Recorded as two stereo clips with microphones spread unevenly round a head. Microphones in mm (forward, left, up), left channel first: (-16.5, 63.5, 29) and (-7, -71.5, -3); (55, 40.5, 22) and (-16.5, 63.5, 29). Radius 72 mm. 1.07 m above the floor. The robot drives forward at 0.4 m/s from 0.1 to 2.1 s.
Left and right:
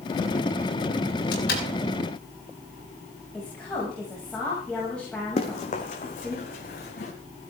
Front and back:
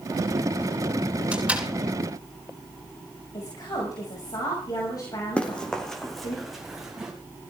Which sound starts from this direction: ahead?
A woman speaking, at 3.3 s.